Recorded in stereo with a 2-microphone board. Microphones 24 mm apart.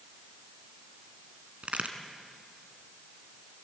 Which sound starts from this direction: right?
A crack, at 1.6 s.